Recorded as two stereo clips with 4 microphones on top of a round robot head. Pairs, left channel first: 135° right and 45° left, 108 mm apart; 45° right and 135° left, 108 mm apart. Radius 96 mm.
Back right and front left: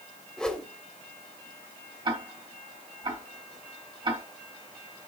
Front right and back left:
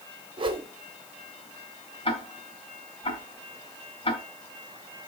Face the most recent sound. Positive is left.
turn(degrees=-5)